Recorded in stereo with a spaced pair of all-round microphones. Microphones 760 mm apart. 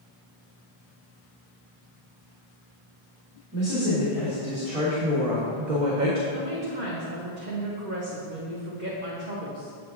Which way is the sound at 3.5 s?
30° right (ahead or behind).